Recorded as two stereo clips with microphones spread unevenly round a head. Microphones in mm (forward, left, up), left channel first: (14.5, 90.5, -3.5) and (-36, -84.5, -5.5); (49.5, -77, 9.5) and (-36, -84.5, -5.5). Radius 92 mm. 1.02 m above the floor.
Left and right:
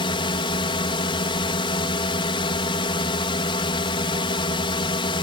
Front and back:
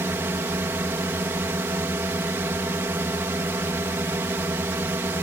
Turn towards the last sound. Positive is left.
turn(degrees=125)